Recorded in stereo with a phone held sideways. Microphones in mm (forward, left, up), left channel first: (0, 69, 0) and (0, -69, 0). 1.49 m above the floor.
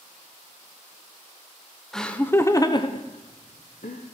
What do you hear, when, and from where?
1.9 s laughter: 5° left (ahead or behind), 1.1 m; by 4.0 s 75° left (ahead or behind), 1.2 m